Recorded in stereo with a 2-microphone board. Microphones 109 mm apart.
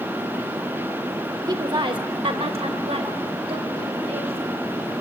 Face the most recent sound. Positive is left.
turn(degrees=-60)  # may be behind; listen again after turning